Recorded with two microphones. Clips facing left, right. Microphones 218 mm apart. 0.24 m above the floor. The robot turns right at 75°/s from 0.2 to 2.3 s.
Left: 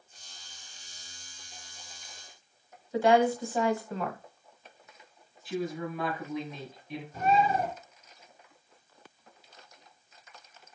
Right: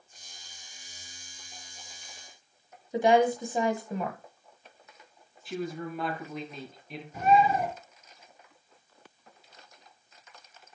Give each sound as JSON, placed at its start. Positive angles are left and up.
{"t": 2.9, "sound": "a woman speaking", "side_deg": -20, "distance_m": 1.2}
{"t": 5.5, "sound": "a woman speaking", "side_deg": 0, "distance_m": 3.5}
{"t": 7.1, "sound": "a bird", "side_deg": -15, "distance_m": 4.5}